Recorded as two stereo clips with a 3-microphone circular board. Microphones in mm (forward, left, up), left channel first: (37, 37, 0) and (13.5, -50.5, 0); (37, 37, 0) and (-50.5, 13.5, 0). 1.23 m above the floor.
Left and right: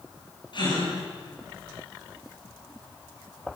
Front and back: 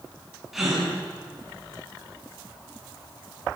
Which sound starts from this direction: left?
A gasp, at 0.5 s.